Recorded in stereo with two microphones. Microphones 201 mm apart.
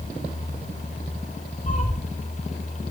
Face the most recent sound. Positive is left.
turn(degrees=35)  # may be behind; listen again after turning